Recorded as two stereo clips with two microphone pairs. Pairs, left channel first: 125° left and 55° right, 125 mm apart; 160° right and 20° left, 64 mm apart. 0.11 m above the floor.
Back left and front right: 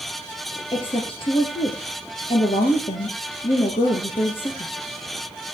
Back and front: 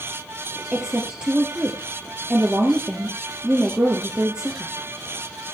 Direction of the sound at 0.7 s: 95° left.